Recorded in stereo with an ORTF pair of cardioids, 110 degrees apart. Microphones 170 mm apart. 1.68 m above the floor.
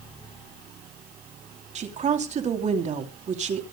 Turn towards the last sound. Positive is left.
turn(degrees=-45)